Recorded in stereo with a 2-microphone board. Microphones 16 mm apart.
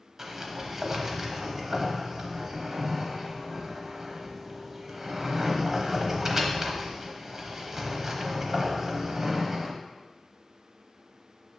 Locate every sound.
0.2 s a sliding door: 25° right (ahead or behind), 0.8 m